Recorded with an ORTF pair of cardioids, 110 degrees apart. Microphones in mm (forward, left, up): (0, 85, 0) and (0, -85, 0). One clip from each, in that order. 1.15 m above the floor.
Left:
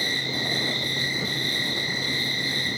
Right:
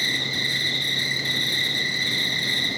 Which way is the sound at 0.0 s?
45° right.